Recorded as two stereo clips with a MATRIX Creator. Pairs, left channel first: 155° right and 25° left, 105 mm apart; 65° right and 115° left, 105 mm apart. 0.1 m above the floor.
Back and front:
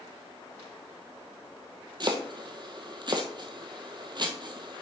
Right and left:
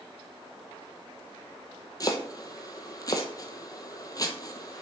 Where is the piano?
I don't hear a piano.